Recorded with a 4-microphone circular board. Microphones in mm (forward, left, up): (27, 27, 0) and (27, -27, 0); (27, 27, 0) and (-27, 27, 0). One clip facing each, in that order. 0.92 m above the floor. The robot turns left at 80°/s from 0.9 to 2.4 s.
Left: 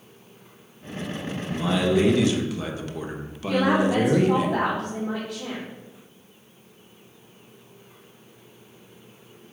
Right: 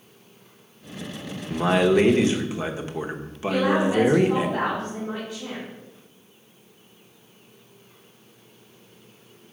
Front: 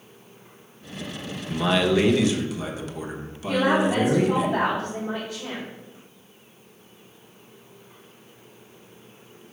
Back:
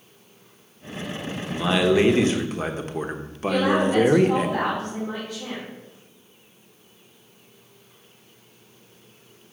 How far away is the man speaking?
About 1.0 m.